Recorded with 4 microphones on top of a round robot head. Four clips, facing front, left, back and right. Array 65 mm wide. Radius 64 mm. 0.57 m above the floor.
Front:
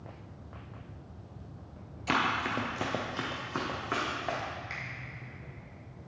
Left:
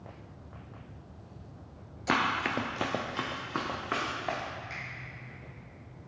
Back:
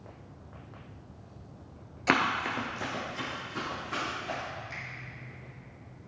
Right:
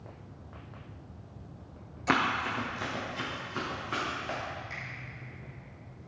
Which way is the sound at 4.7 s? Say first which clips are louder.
Even, front 1 dB; 10° left.